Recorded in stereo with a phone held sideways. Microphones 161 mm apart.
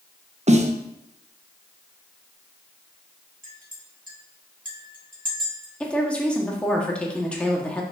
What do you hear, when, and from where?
0.5 s a snare drum: 45° right (ahead or behind), 0.7 m
3.4 s a clink: 60° right (ahead or behind), 1.6 m
5.8 s a woman speaking: 5° left (ahead or behind), 1.6 m